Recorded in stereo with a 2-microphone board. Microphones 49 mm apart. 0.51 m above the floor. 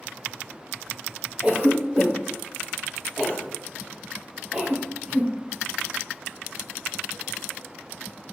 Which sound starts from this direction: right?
A cough, at 1.4 s.